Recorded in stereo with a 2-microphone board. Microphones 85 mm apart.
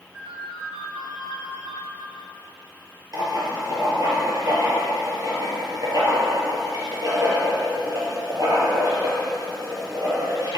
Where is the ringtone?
20° right (ahead or behind), 3.5 m.